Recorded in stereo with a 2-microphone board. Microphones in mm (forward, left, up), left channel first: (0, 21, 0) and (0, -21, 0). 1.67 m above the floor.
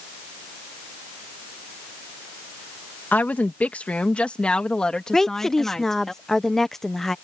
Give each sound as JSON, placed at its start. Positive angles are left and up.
{"t": 3.1, "sound": "a woman speaking", "side_deg": 45}
{"t": 5.1, "sound": "a woman speaking", "side_deg": 10}